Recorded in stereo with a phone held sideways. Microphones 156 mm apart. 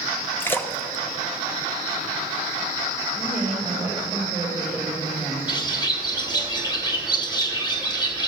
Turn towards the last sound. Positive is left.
turn(degrees=25)  # may be behind; listen again after turning